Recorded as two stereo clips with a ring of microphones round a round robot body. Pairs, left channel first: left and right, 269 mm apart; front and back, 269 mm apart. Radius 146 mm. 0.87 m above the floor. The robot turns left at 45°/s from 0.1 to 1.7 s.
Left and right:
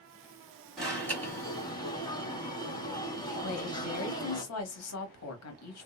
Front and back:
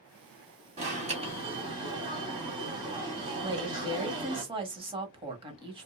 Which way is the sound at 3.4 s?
110° left.